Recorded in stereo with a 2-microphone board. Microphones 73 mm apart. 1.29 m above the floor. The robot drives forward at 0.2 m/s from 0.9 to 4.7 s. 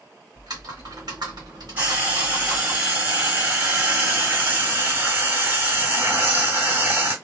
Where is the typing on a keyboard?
65° right (ahead or behind), 1.4 m; by 2.8 s 60° right (ahead or behind), 1.5 m.